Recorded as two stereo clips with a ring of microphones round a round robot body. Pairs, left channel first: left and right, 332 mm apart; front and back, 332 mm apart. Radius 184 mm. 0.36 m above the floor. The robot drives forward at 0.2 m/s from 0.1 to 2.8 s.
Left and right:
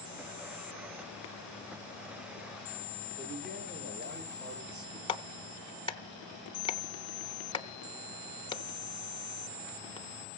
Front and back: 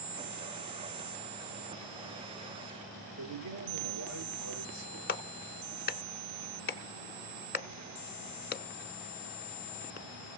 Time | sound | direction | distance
3.2 | a man speaking | 155° right | 7.5 m
5.1 | a clap | 30° left | 0.7 m